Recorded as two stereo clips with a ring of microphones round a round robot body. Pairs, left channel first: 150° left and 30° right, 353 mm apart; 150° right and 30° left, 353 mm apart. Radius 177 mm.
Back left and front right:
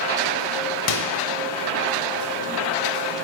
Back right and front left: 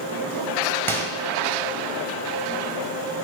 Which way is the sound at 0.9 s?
130° left.